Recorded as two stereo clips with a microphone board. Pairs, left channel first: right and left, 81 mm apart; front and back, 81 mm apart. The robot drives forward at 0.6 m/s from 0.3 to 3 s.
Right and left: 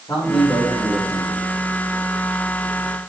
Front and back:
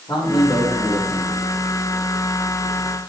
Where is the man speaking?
40° right, 6.5 m; by 1.4 s 45° right, 6 m.